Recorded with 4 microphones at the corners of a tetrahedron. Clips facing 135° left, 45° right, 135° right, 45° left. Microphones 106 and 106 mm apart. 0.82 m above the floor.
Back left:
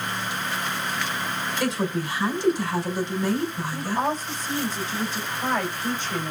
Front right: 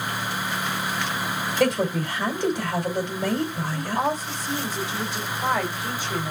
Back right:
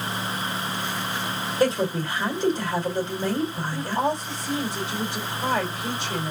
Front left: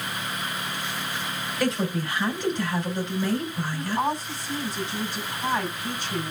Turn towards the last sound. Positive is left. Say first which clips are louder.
# front right 1 dB, even
turn(degrees=-125)